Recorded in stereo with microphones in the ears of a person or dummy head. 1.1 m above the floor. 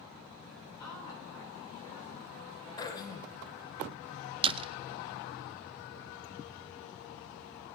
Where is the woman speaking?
20° left (ahead or behind), 8 m.